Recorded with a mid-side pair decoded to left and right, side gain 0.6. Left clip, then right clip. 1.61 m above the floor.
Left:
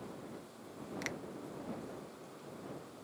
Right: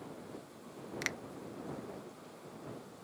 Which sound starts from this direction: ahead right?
A finger snap, at 1.0 s.